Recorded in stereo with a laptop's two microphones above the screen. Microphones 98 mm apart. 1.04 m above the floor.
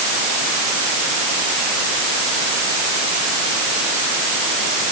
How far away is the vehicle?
I don't hear a vehicle.